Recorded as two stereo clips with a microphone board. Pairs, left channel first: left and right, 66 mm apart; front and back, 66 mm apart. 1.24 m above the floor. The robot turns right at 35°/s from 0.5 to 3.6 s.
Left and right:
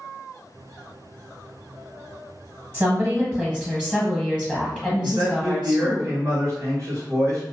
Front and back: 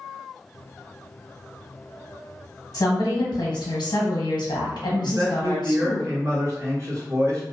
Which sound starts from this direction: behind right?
A man speaking, at 5.0 s.